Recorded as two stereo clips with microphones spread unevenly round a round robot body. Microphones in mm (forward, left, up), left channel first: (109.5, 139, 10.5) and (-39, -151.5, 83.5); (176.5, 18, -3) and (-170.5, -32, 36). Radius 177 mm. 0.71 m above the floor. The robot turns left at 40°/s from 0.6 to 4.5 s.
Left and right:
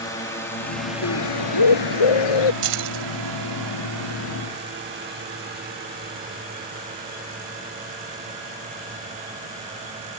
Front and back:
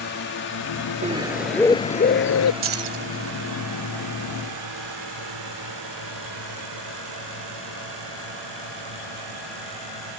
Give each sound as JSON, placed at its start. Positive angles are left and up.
{"t": 0.0, "sound": "a drone", "azimuth_deg": 10}
{"t": 1.0, "sound": "a bird", "azimuth_deg": 120}
{"t": 2.6, "sound": "keys jangling", "azimuth_deg": -115}